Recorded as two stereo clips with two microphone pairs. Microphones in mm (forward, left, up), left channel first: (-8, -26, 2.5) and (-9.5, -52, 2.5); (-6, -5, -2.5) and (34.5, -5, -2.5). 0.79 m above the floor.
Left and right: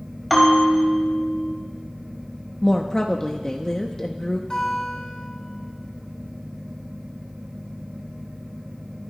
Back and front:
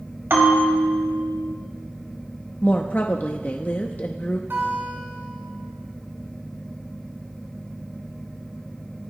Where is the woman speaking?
145° left, 0.7 m.